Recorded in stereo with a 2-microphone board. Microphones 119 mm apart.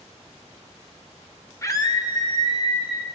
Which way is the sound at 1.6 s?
25° left (ahead or behind).